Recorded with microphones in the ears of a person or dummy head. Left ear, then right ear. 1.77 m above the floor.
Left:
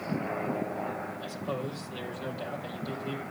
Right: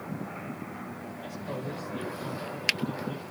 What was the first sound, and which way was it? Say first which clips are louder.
A man speaking: left 2 dB; 65° left (ahead or behind).